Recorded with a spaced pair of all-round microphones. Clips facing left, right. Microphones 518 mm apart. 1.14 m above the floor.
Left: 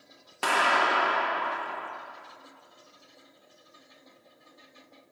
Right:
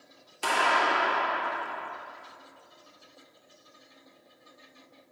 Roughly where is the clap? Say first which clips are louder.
Left 1 dB; left.